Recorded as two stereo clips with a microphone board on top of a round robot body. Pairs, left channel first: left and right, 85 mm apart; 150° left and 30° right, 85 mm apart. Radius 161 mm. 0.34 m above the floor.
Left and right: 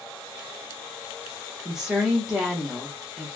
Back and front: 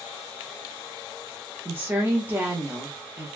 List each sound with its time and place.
1.6 s a woman speaking: 15° right, 1.1 m